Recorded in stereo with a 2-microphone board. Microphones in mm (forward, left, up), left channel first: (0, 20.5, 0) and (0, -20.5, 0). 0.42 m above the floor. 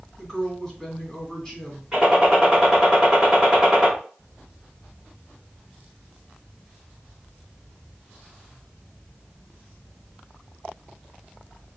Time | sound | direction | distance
0.2 | a woman speaking | 5° left (ahead or behind) | 2.5 m
1.9 | a gunshot | 15° right (ahead or behind) | 1.5 m